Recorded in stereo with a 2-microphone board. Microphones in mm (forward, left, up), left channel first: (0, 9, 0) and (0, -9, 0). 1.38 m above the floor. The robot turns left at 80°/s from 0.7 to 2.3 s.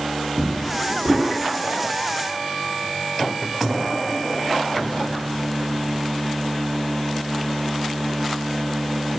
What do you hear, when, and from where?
0.4 s a drawer: 25° right (ahead or behind), 1.0 m; by 1.3 s 60° right (ahead or behind), 1.0 m